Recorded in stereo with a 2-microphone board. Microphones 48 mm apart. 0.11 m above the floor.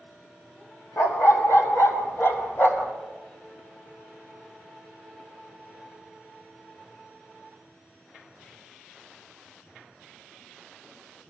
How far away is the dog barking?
About 1.6 m.